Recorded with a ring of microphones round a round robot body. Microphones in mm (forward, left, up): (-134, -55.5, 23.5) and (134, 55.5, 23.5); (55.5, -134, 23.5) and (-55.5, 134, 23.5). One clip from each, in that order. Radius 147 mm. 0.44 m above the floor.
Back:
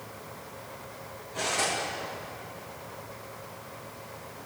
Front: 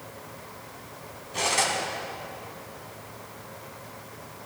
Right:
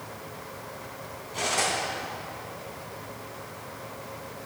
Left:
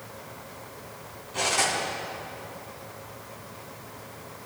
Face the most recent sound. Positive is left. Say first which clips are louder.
# front 4 dB, left 2 dB
turn(degrees=25)